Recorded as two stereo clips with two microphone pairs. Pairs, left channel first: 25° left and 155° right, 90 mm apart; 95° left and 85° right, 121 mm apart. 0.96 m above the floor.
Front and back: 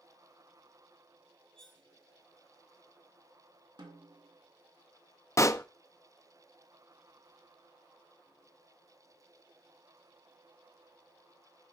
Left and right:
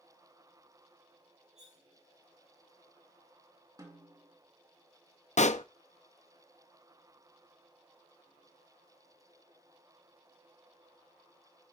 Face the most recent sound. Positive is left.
turn(degrees=80)